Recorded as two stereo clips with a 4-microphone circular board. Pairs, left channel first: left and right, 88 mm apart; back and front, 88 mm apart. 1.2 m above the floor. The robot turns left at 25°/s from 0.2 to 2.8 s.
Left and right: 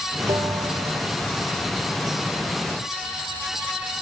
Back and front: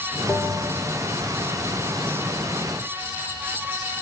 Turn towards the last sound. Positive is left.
turn(degrees=-165)